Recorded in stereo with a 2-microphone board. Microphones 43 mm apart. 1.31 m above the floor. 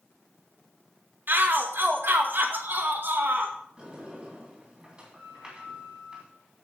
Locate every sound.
1.3 s a shout: 50° right (ahead or behind), 1.9 m
3.8 s a sliding door: 20° right (ahead or behind), 3 m